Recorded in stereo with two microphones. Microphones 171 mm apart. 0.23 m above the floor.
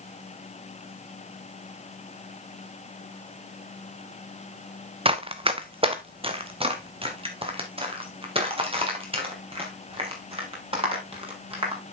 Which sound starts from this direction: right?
Running footsteps, at 5.0 s.